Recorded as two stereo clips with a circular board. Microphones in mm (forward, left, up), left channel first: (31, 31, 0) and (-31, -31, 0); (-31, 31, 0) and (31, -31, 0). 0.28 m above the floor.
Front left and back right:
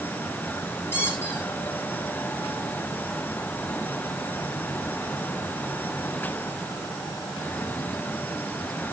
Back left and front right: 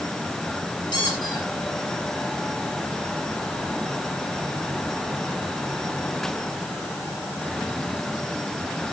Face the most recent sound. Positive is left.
turn(degrees=110)